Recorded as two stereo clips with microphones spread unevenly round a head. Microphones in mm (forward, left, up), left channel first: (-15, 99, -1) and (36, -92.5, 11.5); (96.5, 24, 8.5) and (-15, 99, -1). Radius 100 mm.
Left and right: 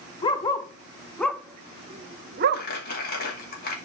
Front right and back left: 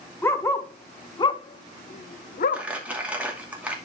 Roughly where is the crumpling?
Ahead left.